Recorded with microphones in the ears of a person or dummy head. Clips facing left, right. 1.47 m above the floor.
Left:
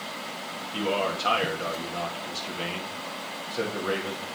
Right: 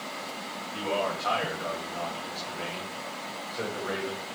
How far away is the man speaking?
About 3 m.